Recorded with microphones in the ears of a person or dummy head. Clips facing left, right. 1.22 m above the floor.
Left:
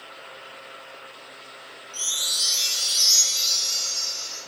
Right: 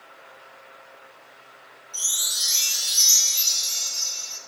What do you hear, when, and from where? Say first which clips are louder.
1.9 s a chime: left 3 dB; 25° right (ahead or behind), 1.4 m